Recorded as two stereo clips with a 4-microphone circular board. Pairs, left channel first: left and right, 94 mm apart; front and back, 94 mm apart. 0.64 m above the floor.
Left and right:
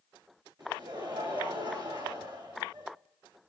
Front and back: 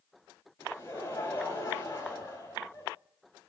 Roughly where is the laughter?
Ahead right.